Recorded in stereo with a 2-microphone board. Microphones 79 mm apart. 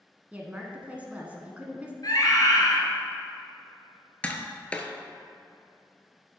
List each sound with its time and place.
0.3 s a woman speaking: 20° right (ahead or behind), 1.0 m
2.0 s a scream: 50° left (ahead or behind), 1.9 m
4.2 s tapping: 15° left (ahead or behind), 0.8 m